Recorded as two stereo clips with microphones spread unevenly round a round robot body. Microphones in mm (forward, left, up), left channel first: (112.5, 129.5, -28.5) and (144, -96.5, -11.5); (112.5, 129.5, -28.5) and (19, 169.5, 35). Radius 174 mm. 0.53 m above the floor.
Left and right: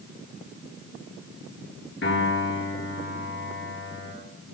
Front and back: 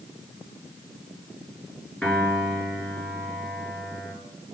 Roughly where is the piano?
Ahead left.